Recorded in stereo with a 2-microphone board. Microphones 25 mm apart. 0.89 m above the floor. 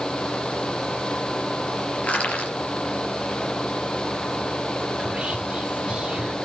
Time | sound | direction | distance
2.0 | crushing | 65° left (ahead or behind) | 5 m
5.0 | whispering | 40° right (ahead or behind) | 2.5 m